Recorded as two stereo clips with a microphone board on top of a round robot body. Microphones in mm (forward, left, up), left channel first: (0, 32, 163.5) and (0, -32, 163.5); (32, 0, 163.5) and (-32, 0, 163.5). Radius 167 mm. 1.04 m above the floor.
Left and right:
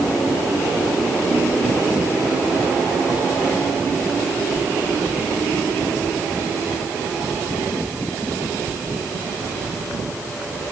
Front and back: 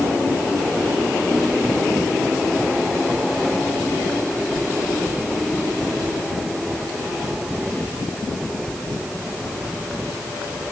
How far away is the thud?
No thud in this recording.